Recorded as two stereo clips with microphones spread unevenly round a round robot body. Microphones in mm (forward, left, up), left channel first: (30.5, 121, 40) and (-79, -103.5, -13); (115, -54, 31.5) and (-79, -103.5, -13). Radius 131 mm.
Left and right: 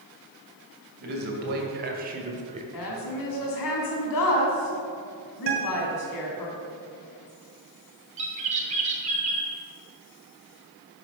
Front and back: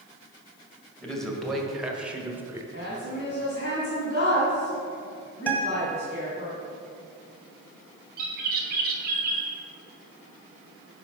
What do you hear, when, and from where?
1.0 s a man speaking: 80° right, 2.5 m; by 2.6 s 120° right, 1.3 m
2.7 s a woman speaking: 70° left, 3 m
5.5 s a guitar: 75° right, 2.0 m
8.2 s a bird: 160° right, 1.8 m